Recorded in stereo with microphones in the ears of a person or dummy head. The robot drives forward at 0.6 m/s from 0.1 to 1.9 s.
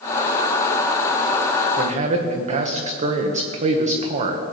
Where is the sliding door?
No sliding door in this recording.